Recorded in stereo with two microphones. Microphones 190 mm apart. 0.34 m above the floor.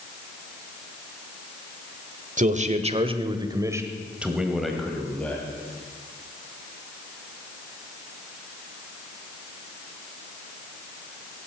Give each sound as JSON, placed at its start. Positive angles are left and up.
{"t": 2.4, "sound": "a man speaking", "side_deg": -40, "distance_m": 1.1}